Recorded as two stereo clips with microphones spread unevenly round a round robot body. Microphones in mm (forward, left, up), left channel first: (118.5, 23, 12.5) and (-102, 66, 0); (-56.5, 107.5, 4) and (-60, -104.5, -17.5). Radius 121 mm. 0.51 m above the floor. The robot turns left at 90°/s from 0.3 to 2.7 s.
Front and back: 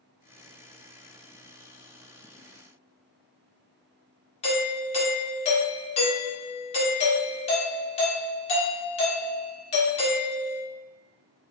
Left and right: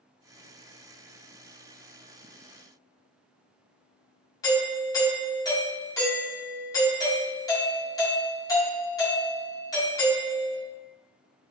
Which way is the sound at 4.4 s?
20° left.